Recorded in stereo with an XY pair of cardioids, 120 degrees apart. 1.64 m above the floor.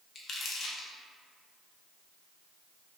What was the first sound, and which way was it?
Crumpling, 45° left.